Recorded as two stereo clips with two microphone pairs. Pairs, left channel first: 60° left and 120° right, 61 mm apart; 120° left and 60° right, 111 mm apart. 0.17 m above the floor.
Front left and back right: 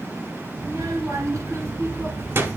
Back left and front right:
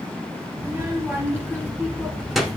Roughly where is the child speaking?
Behind right.